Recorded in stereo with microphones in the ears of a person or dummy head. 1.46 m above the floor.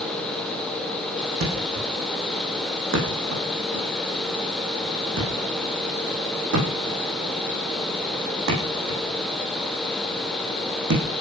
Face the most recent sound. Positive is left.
turn(degrees=-70)  # may be behind; listen again after turning